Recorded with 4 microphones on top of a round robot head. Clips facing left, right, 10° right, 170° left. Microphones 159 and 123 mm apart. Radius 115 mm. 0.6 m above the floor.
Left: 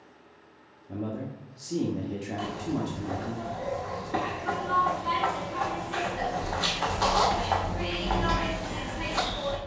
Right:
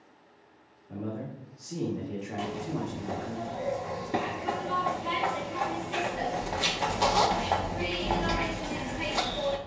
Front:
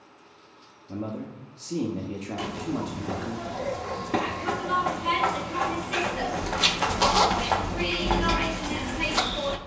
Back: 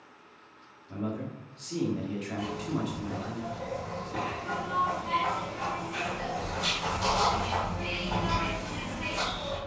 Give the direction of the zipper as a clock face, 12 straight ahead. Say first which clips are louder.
Left 2 dB, front 3 dB; 1 o'clock.